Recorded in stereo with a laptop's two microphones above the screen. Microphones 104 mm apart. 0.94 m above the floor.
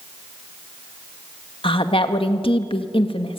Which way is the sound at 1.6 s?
55° left (ahead or behind).